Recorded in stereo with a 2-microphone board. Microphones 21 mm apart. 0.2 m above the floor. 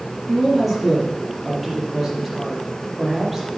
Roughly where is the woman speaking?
Centre.